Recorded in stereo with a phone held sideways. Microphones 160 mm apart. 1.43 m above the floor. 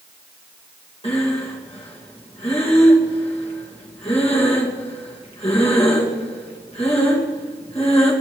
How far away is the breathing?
About 2 m.